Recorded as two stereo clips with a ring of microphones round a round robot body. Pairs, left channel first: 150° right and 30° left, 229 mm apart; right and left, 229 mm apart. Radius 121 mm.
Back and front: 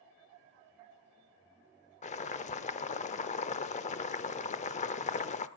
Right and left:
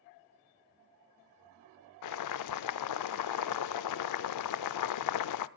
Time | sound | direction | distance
2.0 | boiling | 85° right | 0.5 m